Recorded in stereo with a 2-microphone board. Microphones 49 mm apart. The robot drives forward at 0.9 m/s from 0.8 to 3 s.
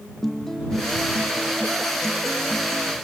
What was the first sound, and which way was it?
A guitar, 5° left (ahead or behind).